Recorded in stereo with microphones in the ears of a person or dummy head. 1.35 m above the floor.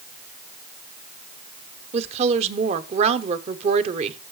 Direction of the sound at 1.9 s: 35° right (ahead or behind).